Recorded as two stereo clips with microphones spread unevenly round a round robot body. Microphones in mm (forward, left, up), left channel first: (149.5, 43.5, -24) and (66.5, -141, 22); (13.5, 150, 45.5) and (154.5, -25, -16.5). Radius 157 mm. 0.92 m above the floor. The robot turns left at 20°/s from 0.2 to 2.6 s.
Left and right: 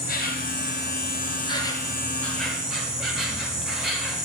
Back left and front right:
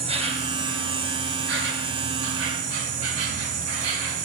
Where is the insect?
20° left, 1.4 m; by 4.3 s 30° right, 1.4 m.